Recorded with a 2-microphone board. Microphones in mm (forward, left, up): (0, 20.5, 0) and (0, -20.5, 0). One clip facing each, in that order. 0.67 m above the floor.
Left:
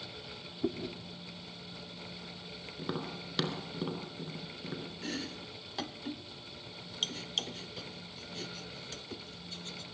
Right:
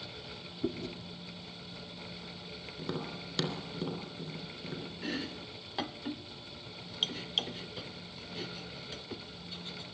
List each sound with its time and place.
0.6 s chewing: 20° left (ahead or behind), 1.2 m
2.8 s tapping: 15° left (ahead or behind), 3 m
5.0 s chopping: 15° right (ahead or behind), 0.6 m